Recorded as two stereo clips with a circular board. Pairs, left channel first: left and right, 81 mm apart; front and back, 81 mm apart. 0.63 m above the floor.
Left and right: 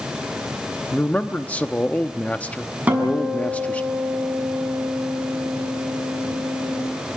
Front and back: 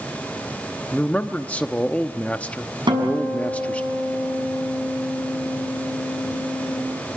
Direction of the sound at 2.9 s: 160° right.